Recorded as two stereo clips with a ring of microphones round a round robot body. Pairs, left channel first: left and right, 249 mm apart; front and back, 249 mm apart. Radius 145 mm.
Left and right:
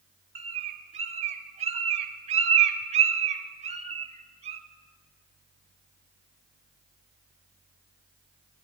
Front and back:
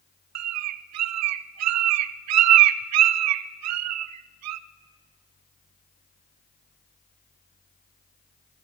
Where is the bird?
160° right, 0.5 m.